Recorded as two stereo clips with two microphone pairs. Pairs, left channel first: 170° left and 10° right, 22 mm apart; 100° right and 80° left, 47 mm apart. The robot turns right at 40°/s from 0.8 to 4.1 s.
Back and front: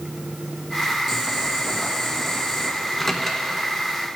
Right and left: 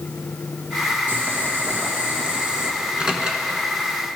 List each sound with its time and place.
1.1 s boiling: 60° left, 1.7 m; by 2.7 s 125° left, 1.7 m
2.8 s a microwave: 105° left, 1.1 m; by 3.5 s 130° left, 1.1 m